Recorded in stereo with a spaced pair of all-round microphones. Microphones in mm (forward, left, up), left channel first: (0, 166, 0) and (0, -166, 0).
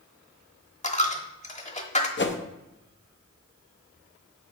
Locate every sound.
0.8 s a dropped coin: 20° left (ahead or behind), 0.9 m
2.2 s a whoosh: 35° left (ahead or behind), 0.7 m